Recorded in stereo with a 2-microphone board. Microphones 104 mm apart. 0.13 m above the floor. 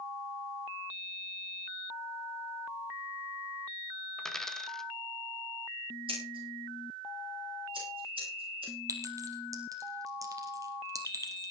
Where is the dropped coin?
5° left (ahead or behind), 1.2 m.